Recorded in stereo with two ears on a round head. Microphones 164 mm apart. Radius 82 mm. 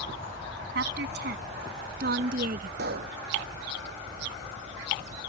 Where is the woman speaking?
65° right (ahead or behind); by 2.7 s 50° right (ahead or behind).